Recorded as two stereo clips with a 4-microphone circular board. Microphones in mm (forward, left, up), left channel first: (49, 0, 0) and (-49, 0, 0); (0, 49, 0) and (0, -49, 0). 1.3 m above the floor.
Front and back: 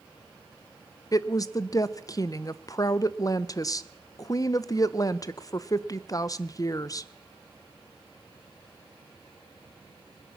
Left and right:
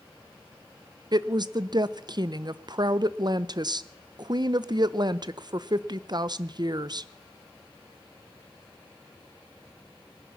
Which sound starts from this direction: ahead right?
A woman speaking, at 1.1 s.